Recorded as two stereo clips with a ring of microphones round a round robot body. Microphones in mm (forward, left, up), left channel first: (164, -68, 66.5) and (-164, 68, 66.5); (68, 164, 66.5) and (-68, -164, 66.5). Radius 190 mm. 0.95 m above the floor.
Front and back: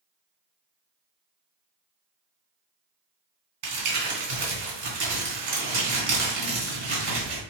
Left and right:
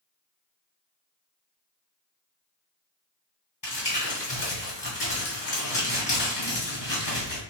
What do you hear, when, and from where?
3.6 s crumpling: 140° left, 2.5 m